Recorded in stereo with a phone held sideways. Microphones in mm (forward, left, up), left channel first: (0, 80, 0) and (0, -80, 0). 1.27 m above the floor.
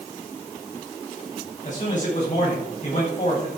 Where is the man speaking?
50° left (ahead or behind), 9.5 m.